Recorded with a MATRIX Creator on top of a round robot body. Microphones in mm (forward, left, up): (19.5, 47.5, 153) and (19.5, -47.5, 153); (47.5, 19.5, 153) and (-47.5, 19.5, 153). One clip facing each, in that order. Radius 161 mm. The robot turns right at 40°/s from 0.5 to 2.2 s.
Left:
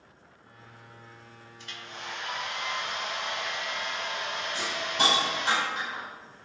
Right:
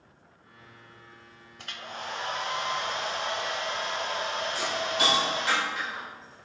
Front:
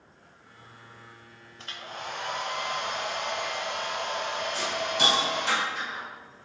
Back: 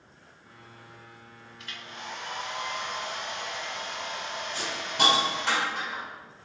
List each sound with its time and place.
1.6 s a hair dryer: 60° right, 1.0 m; by 5.5 s 35° right, 1.0 m
4.5 s a hiss: 150° left, 4.5 m